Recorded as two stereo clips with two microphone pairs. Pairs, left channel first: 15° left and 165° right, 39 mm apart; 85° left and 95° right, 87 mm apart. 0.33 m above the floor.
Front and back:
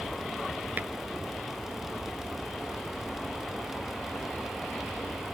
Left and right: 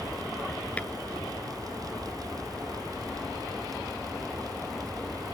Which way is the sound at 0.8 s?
160° left.